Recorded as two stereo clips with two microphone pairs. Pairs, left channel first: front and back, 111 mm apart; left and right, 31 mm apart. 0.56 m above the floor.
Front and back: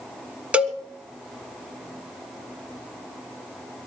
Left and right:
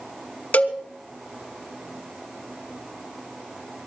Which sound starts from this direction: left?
A cowbell, at 0.5 s.